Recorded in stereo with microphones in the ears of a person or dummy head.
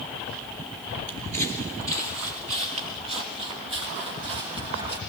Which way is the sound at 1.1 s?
25° right (ahead or behind).